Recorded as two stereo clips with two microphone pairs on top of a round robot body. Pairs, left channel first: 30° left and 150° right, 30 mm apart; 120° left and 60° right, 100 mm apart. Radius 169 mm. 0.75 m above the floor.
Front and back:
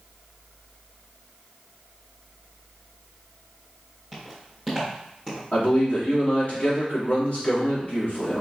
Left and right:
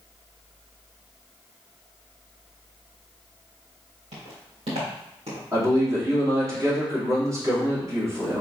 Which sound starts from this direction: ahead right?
Footsteps, at 4.1 s.